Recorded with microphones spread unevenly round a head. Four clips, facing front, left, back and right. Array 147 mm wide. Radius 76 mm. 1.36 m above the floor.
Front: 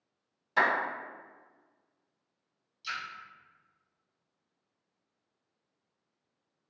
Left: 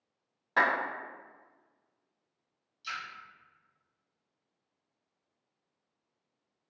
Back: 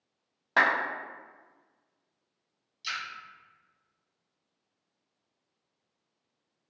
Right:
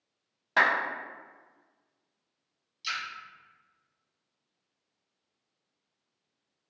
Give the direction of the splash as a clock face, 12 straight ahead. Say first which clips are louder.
Right 3 dB, back 1 dB; 5 o'clock.